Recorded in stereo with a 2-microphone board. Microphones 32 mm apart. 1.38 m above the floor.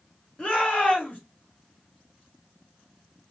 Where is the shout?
40° left (ahead or behind), 2 m.